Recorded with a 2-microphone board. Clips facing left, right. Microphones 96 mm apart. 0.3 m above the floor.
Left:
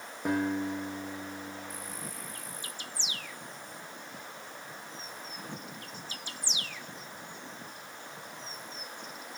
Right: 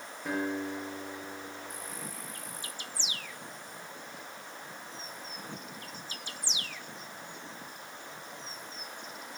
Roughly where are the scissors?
I don't hear scissors.